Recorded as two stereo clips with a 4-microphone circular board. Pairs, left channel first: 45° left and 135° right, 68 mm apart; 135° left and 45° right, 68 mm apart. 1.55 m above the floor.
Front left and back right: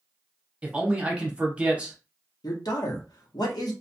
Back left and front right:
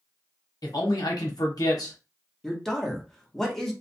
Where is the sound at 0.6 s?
155° left, 0.9 m.